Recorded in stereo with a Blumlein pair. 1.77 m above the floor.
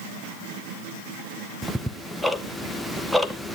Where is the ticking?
Straight ahead, 0.7 m.